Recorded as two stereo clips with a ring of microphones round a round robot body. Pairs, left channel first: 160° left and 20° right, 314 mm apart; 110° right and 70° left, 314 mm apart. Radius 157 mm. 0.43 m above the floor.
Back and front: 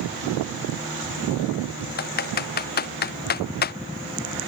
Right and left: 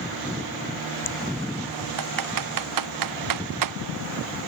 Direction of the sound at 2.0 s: 95° left.